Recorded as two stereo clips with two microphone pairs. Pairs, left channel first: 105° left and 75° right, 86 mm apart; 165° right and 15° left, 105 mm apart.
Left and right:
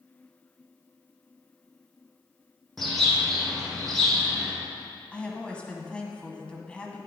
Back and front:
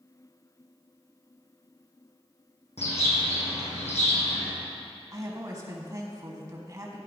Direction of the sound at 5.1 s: 35° left.